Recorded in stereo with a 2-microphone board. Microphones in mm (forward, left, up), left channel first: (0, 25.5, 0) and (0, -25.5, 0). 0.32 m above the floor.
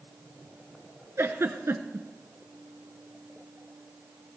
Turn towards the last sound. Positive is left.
turn(degrees=-65)  # may be behind; listen again after turning